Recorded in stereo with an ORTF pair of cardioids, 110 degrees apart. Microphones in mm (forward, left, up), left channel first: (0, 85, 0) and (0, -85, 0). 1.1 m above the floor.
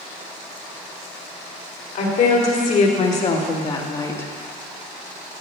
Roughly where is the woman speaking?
Ahead left.